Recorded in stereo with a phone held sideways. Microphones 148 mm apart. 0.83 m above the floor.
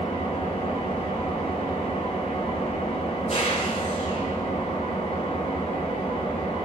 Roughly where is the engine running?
Left.